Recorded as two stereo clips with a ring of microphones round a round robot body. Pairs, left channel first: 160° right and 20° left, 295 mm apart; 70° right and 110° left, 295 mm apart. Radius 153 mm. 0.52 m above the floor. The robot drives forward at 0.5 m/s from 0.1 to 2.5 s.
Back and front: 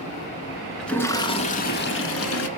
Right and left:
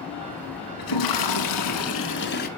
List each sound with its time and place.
0.8 s a toilet flushing: 70° right, 0.9 m; by 2.5 s 125° right, 1.0 m